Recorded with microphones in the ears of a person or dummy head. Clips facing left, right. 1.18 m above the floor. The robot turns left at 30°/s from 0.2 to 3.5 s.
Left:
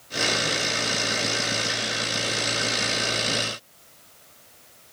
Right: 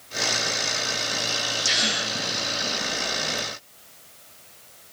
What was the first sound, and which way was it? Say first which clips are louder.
A gasp: even; 80° right.